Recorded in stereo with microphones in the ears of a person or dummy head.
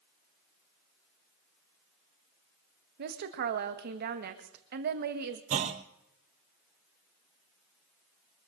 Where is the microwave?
No microwave in this recording.